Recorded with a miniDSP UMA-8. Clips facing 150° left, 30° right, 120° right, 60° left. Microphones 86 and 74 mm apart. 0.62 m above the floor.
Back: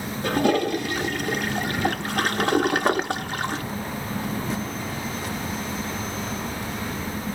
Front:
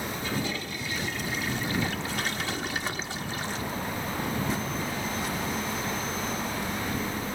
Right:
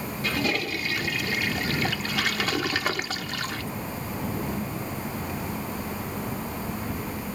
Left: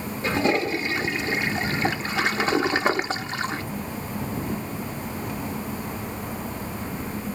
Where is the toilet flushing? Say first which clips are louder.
Back 15 dB, left 6 dB; 125° left.